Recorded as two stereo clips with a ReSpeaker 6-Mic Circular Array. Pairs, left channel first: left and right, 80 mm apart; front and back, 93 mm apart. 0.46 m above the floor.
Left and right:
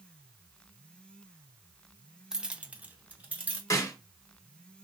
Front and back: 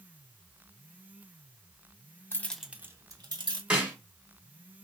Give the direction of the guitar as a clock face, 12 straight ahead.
No guitar in this recording.